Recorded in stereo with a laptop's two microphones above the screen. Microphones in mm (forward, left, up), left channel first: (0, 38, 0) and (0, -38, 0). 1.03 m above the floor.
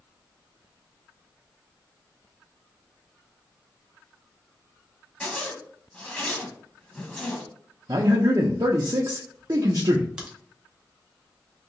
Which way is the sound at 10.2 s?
10° right (ahead or behind).